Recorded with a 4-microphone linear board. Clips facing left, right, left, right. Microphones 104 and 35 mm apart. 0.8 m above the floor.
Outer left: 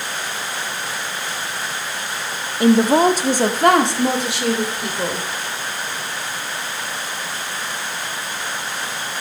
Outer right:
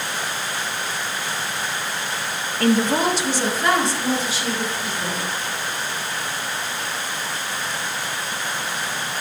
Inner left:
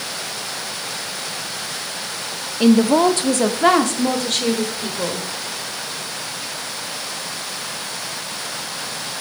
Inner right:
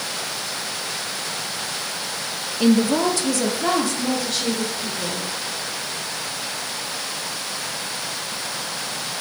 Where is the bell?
No bell in this recording.